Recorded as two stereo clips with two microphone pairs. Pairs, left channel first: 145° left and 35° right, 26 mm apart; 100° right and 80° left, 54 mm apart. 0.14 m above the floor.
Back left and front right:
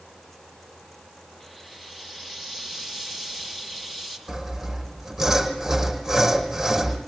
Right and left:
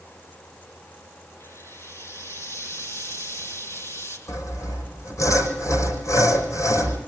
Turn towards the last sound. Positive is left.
turn(degrees=-110)